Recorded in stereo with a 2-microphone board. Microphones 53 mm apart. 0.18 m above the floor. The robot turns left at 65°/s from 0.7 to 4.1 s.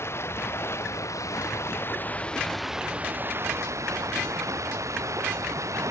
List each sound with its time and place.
0.0 s running water: 125° left; by 5.9 s 100° right